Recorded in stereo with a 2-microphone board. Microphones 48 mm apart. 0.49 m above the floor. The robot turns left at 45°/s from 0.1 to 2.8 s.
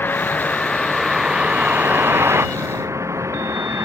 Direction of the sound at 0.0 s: 45° left.